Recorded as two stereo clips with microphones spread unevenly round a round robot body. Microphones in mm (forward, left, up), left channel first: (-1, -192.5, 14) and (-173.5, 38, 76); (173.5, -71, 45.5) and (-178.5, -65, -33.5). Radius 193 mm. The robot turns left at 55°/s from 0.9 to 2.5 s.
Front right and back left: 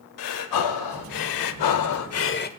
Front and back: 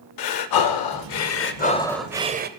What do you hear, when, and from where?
0.2 s breathing: 30° right, 0.7 m; by 2.5 s 115° right, 0.7 m